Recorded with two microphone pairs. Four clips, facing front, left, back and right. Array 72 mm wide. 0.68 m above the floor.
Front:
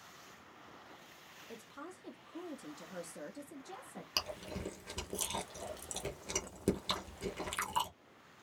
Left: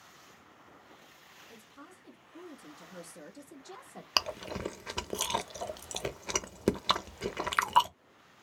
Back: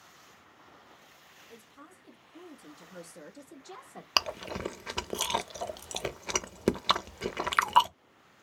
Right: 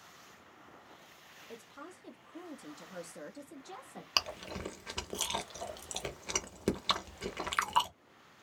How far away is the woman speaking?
About 1.5 m.